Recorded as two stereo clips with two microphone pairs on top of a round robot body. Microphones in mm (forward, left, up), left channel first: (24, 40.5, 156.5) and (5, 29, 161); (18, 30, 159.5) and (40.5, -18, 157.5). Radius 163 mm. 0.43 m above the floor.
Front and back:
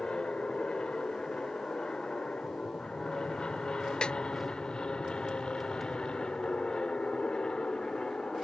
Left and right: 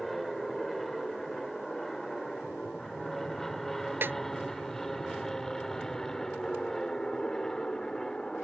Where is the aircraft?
30° left; by 8.4 s 40° left.